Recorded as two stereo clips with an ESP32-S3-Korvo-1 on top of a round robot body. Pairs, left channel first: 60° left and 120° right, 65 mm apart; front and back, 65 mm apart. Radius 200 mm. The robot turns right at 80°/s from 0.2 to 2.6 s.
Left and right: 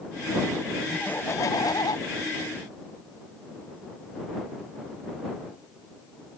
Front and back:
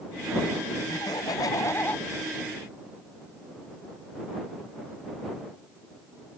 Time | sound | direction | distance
0.9 | laughter | 20° right | ?